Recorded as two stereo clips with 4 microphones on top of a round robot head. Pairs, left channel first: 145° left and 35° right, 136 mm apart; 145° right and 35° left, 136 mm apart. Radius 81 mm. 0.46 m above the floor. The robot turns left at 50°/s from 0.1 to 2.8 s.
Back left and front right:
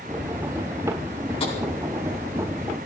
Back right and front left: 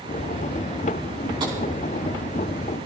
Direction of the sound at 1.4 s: 95° left.